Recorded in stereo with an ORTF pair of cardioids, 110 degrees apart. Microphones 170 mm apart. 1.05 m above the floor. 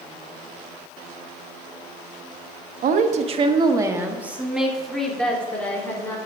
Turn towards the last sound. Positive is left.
turn(degrees=10)